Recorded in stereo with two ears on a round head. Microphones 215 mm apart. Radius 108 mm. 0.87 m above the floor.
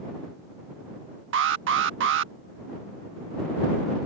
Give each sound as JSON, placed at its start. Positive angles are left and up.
{"t": 1.3, "sound": "an alarm", "side_deg": -55}